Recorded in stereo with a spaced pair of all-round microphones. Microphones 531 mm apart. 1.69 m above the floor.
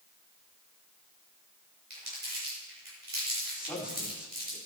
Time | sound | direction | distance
1.9 | crumpling | 85° right | 7 m
3.5 | a man speaking | centre (ahead or behind) | 6 m